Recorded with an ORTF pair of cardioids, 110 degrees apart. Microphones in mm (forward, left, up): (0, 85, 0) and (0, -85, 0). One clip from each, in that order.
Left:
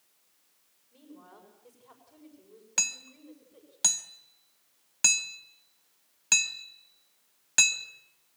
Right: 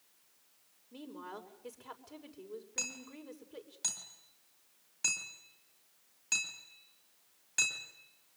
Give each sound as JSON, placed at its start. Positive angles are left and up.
{"t": 0.9, "sound": "a woman speaking", "azimuth_deg": -65, "distance_m": 6.0}
{"t": 2.8, "sound": "hammering", "azimuth_deg": 65, "distance_m": 2.5}